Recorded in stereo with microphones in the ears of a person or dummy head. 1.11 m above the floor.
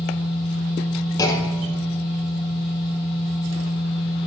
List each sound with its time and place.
0.0 s a machine running: 50° left (ahead or behind), 2.5 m
1.2 s a clunk: 15° left (ahead or behind), 1.0 m